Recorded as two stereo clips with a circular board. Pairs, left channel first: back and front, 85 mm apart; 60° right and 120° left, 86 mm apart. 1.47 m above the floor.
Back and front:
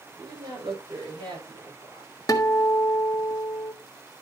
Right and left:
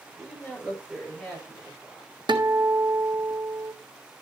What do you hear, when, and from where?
0.2 s a woman speaking: 30° left, 7.5 m; by 2.1 s 20° left, 6 m
2.3 s a guitar: 135° left, 1.5 m